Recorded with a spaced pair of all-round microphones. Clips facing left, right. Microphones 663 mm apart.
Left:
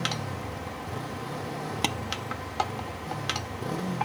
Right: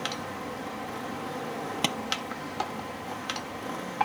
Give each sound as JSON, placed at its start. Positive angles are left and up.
{"t": 0.0, "sound": "a motorcycle", "side_deg": 65}
{"t": 1.8, "sound": "tapping", "side_deg": -5}